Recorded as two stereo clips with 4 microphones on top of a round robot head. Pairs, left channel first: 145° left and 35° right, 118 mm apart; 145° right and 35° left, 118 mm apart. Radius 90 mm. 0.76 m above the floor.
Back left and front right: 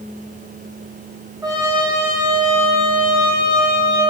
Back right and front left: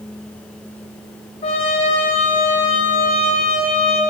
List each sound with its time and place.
1.4 s a trumpet: 105° right, 1.4 m